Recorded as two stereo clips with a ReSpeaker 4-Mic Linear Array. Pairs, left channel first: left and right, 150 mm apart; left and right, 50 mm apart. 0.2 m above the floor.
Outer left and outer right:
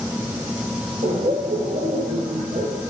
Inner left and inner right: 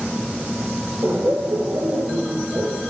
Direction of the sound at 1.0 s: 65° right (ahead or behind).